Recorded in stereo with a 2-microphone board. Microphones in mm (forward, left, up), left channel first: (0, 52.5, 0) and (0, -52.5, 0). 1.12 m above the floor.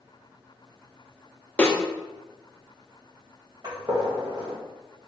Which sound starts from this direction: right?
A gunshot, at 3.6 s.